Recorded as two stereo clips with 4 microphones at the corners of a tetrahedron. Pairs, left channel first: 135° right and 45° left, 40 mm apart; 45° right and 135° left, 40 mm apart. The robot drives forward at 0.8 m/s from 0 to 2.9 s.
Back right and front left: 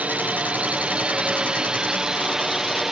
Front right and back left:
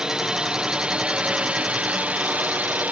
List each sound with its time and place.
0.0 s a drone: 75° left; by 2.9 s 120° left